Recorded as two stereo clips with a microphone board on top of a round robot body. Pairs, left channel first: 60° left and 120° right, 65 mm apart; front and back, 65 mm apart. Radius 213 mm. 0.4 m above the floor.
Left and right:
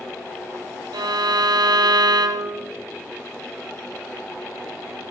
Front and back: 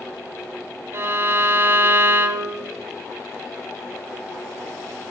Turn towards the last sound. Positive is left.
turn(degrees=-125)